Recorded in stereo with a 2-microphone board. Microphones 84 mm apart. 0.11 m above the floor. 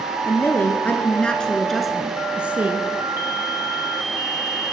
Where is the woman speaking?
30° left (ahead or behind), 1.9 m; by 2.9 s 20° right (ahead or behind), 1.7 m.